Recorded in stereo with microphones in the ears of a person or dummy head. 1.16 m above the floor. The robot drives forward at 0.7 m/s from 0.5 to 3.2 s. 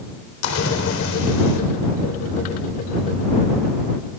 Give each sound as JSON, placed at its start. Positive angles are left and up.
{"t": 0.4, "sound": "a splash", "side_deg": 80, "distance_m": 3.5}